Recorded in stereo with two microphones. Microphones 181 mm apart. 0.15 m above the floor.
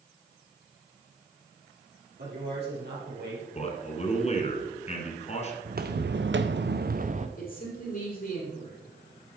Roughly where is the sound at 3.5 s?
Left.